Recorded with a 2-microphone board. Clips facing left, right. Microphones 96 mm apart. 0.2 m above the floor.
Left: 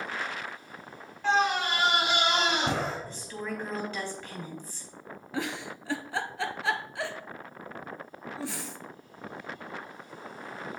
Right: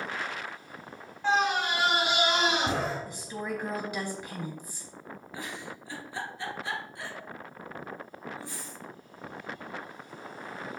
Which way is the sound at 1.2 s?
5° right (ahead or behind).